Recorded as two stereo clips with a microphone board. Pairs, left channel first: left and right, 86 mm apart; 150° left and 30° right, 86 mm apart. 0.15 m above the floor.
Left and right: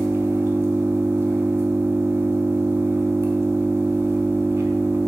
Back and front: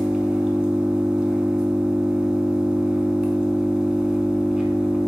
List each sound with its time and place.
0.0 s an engine running: 100° right, 0.7 m